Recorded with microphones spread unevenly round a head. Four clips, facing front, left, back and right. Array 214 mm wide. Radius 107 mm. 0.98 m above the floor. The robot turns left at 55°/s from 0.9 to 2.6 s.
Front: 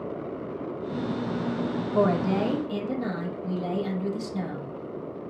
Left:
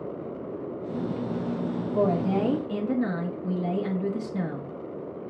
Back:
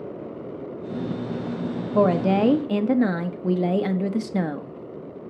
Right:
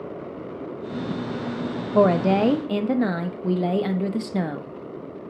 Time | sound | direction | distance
1.9 | a woman speaking | 110° right | 0.8 m